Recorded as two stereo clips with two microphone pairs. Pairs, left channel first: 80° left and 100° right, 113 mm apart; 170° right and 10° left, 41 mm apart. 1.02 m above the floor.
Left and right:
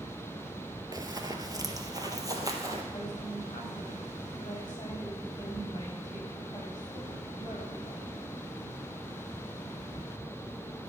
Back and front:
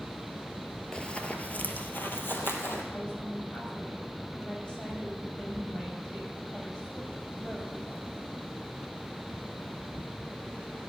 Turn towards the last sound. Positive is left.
turn(degrees=135)